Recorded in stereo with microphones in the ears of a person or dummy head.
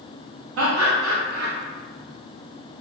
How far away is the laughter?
About 0.8 m.